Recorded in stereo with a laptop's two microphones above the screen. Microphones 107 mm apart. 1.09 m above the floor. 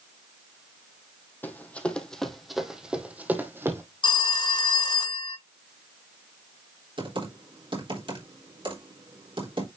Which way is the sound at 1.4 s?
20° left (ahead or behind).